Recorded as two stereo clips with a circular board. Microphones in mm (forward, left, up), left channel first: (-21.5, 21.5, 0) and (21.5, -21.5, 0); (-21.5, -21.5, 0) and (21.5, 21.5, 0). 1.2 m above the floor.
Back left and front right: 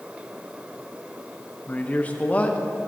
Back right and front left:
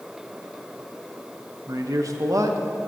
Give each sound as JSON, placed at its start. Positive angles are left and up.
{"t": 1.7, "sound": "a man speaking", "azimuth_deg": 70, "distance_m": 1.0}